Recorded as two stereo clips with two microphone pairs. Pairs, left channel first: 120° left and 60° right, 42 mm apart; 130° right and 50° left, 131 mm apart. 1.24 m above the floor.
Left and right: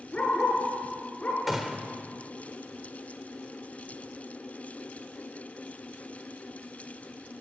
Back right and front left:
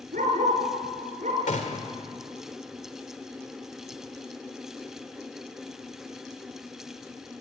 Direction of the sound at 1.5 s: 140° right.